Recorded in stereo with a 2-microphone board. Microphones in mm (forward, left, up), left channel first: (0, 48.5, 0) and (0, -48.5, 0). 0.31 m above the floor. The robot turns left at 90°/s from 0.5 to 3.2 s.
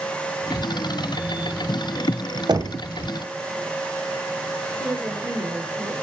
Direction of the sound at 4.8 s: 25° right (ahead or behind).